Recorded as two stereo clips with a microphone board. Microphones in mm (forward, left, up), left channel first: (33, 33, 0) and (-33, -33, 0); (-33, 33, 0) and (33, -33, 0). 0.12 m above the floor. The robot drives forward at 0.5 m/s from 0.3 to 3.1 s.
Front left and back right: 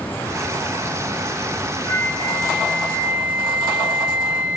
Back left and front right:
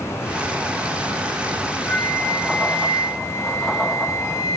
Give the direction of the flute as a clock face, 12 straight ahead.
10 o'clock.